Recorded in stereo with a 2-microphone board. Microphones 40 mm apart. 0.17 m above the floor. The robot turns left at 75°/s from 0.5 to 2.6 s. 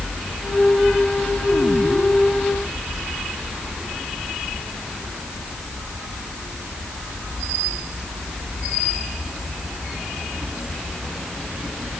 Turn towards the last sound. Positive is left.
No sound to turn to.